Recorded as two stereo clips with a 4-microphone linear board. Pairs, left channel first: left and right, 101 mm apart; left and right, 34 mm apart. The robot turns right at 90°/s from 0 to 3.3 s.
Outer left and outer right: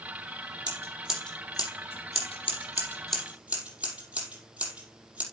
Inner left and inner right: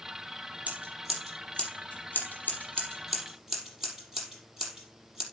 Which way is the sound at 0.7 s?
45° right (ahead or behind).